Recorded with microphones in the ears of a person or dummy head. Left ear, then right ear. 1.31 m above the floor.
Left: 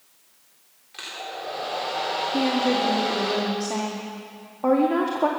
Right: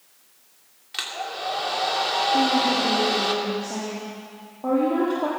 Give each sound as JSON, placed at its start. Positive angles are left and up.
{"t": 0.9, "sound": "a hair dryer", "side_deg": -40, "distance_m": 2.5}
{"t": 2.3, "sound": "a woman speaking", "side_deg": 60, "distance_m": 2.0}